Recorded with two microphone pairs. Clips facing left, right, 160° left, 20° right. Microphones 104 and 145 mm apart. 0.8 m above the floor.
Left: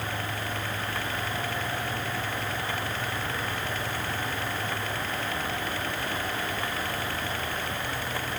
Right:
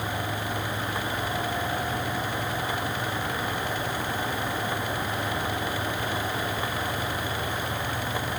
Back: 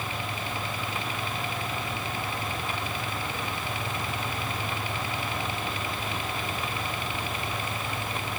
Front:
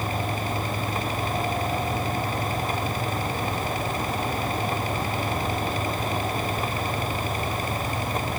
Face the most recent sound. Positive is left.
No sound to turn to.